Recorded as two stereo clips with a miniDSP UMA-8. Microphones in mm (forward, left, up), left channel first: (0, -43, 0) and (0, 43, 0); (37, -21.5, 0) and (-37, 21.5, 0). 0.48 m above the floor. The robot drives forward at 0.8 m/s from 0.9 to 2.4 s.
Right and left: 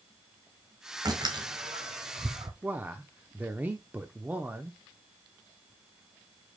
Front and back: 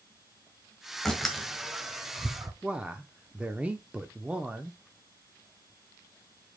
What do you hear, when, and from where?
1.1 s a door slam: 55° left, 1.5 m; by 2.5 s 100° left, 1.2 m
2.6 s a man speaking: 100° left, 0.7 m